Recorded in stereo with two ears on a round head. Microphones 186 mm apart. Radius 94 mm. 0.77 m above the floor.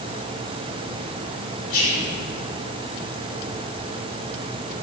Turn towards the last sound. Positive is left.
turn(degrees=70)  # may be behind; listen again after turning